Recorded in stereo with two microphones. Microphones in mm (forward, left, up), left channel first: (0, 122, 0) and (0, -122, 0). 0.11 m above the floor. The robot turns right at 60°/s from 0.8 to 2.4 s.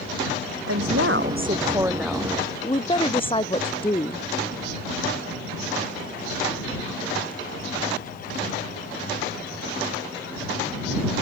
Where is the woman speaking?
75° right; by 4.3 s 20° left.